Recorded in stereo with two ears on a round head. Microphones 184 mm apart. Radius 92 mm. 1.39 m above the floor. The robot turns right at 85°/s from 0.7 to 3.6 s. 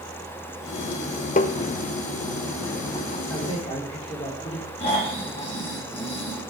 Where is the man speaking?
5° left (ahead or behind), 3.5 m; by 4.7 s 30° left (ahead or behind), 3.5 m.